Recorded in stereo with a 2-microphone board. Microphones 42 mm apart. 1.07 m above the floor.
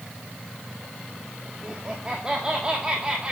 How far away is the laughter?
About 1.8 m.